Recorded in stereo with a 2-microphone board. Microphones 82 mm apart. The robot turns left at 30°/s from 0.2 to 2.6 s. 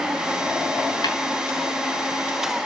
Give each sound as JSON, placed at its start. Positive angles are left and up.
{"t": 1.0, "sound": "tapping", "side_deg": 55, "distance_m": 3.5}